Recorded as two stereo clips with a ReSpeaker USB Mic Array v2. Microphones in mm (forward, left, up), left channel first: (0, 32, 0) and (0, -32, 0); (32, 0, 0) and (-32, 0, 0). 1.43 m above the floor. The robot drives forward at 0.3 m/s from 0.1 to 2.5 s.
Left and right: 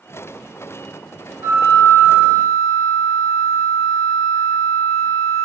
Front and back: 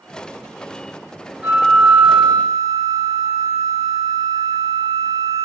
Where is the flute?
120° right, 1.1 m; by 5.5 s 135° right, 1.3 m.